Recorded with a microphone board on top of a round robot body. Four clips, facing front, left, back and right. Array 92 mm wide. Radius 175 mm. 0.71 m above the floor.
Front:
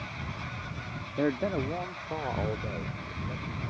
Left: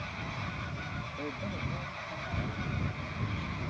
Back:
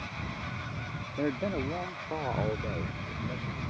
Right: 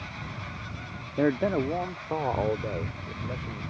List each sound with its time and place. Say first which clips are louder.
1.2 s a man speaking: right 16 dB, front 3 dB; 75° right; by 3.6 s 95° right